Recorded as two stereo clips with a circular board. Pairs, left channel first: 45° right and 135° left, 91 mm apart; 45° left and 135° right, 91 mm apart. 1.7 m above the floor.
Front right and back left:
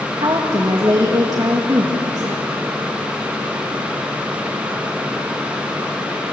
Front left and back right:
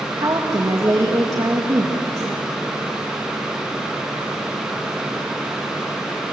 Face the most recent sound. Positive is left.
turn(degrees=175)